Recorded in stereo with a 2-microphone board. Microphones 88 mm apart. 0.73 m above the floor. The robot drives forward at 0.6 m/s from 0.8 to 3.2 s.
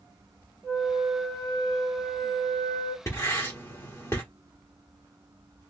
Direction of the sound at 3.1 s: 35° left (ahead or behind).